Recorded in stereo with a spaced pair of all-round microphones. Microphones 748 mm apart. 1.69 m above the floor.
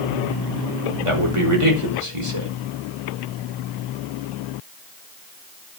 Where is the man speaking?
40° right (ahead or behind), 5 m.